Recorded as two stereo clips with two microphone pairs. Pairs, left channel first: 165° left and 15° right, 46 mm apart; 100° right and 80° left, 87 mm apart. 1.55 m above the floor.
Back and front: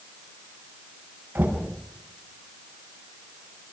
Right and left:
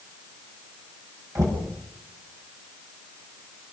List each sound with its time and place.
1.4 s knocking: 30° left, 8 m